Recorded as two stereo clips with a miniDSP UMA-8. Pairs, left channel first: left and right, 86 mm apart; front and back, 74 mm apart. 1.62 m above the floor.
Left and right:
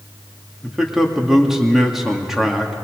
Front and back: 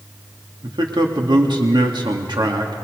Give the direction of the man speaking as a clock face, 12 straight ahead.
6 o'clock.